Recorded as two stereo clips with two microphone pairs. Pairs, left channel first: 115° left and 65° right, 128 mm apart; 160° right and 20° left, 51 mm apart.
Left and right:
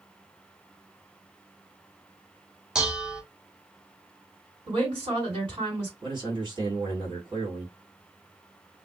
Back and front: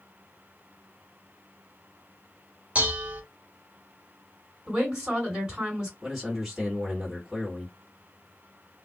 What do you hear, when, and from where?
2.8 s dishes clattering: 5° left, 0.7 m
4.7 s a woman speaking: 55° right, 2 m
6.0 s a man speaking: 60° right, 1.7 m